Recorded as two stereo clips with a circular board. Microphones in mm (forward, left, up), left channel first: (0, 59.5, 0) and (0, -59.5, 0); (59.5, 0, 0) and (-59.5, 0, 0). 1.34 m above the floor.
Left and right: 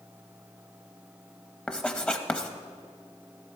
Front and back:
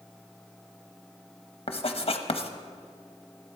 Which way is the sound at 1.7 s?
10° left.